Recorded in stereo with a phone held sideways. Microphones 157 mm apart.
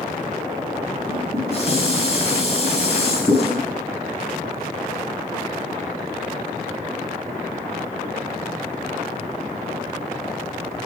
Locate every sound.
1.1 s dishes clattering: 45° left (ahead or behind), 5 m